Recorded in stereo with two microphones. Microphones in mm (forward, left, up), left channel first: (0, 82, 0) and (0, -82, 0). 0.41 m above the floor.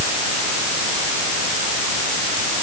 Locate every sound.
Only background noise.